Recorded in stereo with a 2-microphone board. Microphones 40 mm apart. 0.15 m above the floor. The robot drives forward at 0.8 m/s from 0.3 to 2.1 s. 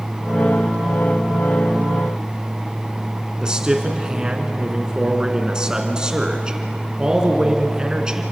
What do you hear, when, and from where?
3.4 s a man speaking: 20° right (ahead or behind), 2 m